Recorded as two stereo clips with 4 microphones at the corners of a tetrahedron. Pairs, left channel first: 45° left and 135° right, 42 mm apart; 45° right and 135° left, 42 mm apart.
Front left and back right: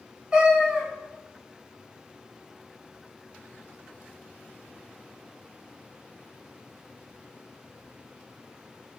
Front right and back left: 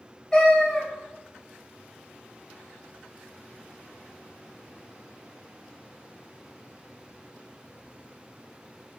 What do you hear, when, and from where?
0.3 s a cat meowing: 95° right, 0.9 m